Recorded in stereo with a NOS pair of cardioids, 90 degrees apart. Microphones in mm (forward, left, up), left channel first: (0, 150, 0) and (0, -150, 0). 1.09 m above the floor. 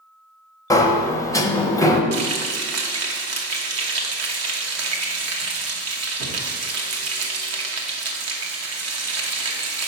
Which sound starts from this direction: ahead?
A sliding door, at 0.7 s.